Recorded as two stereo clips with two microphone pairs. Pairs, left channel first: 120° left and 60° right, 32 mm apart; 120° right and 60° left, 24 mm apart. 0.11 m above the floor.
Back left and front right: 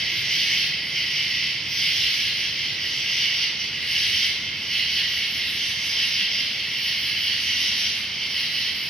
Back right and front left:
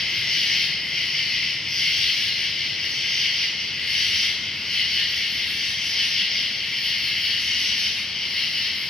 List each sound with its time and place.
0.0 s an insect: 165° right, 0.8 m